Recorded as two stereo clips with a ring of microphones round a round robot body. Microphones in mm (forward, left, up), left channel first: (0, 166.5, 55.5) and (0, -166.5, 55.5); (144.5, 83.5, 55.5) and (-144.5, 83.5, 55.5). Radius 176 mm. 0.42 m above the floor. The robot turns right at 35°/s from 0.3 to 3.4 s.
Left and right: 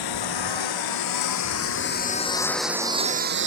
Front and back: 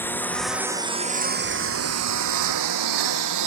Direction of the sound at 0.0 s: 85° left.